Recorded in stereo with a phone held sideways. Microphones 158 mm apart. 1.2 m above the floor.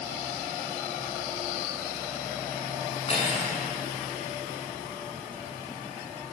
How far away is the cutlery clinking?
About 8 m.